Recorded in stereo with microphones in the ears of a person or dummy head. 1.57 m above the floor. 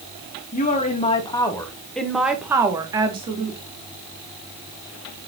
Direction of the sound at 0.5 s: 40° left (ahead or behind).